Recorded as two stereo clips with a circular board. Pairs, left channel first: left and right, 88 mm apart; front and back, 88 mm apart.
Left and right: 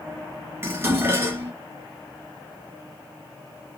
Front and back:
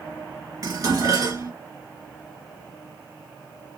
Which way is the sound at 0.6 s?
140° right.